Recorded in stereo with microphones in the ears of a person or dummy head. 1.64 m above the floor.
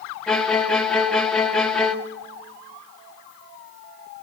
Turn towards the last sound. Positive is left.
turn(degrees=5)  # may be behind; listen again after turning